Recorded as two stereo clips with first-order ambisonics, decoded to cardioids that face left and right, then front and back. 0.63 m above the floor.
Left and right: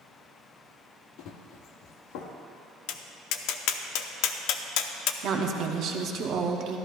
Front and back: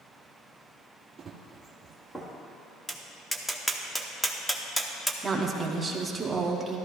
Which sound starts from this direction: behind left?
Running footsteps, at 1.2 s.